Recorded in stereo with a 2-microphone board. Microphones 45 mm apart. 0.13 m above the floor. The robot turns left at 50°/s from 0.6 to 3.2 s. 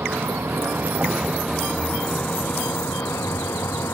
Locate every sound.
0.0 s a vehicle: 60° right (ahead or behind); by 4.0 s 80° left